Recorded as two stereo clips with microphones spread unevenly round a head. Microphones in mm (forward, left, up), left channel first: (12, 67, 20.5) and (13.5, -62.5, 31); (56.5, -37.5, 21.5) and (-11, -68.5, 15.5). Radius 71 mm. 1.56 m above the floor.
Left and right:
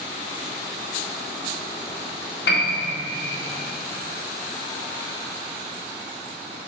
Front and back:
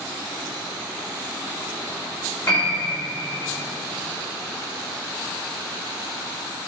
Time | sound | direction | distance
2.5 | a piano | 100° left | 1.7 m